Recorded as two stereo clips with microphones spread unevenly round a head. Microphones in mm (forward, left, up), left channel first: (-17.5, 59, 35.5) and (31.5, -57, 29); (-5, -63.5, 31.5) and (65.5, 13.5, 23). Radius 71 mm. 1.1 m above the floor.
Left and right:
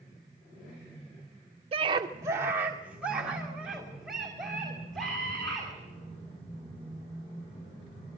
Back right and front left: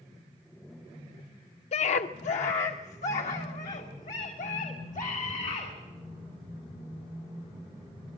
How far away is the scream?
About 0.5 m.